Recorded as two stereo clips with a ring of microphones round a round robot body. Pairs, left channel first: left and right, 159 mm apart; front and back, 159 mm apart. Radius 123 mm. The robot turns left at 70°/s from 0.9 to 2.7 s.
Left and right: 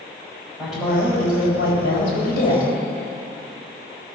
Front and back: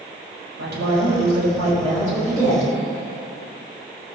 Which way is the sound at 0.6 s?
Straight behind.